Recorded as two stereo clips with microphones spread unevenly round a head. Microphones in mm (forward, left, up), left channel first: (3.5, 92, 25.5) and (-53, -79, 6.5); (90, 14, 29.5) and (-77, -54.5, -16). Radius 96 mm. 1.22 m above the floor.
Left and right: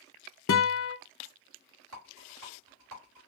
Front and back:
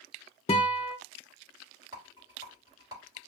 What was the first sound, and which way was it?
A guitar, 85° left.